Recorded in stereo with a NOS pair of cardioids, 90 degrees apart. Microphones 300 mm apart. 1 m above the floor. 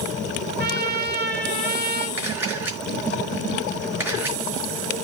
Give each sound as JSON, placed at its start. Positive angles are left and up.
{"t": 0.6, "sound": "a trumpet", "azimuth_deg": -35, "distance_m": 2.5}
{"t": 2.2, "sound": "a camera shutter", "azimuth_deg": -5, "distance_m": 5.0}